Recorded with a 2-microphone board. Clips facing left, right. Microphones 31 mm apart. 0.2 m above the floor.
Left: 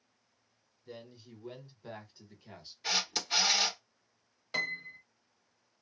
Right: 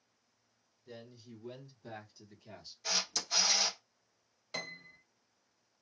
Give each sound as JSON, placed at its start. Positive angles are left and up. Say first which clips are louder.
{"t": 0.9, "sound": "a man speaking", "louder": "left 2 dB", "side_deg": 20, "distance_m": 1.2}
{"t": 2.8, "sound": "a camera shutter", "louder": "left 3 dB", "side_deg": 35, "distance_m": 1.2}
{"t": 4.5, "sound": "a piano", "louder": "left 8 dB", "side_deg": 20, "distance_m": 0.8}